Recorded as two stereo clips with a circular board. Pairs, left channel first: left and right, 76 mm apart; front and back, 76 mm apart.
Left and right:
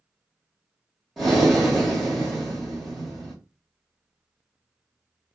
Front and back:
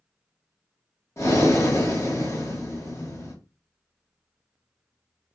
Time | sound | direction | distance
1.2 | breathing | 5° right | 1.2 m